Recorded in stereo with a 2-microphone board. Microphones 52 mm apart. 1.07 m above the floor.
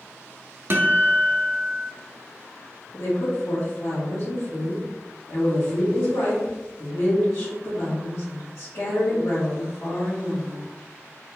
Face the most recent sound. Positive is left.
turn(degrees=60)  # may be behind; listen again after turning